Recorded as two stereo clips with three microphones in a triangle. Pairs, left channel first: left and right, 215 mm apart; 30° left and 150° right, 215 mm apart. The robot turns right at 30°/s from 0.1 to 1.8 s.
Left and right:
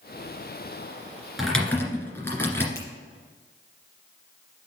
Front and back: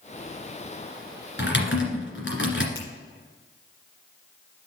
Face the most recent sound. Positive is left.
turn(degrees=15)